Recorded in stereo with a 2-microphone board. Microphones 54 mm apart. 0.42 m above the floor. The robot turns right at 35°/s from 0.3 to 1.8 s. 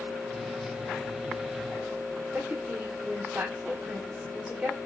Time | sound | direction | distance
2.3 | a woman speaking | 25° right (ahead or behind) | 1.3 m